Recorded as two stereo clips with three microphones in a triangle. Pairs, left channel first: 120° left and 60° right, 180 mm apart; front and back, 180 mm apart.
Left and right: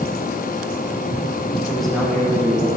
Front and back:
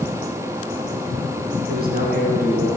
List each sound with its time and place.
1.7 s a man speaking: 150° right, 4.5 m